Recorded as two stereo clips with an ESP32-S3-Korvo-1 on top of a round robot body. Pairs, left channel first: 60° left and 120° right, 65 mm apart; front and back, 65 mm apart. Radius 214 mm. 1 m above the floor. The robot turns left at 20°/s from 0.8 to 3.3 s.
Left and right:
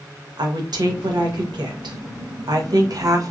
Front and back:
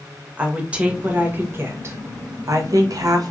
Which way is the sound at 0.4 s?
105° right.